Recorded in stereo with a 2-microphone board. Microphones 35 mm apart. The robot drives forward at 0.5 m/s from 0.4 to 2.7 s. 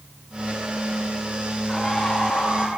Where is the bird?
10° left (ahead or behind), 9 m.